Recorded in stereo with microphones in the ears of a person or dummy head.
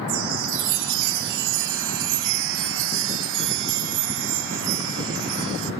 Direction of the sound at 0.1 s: 65° right (ahead or behind).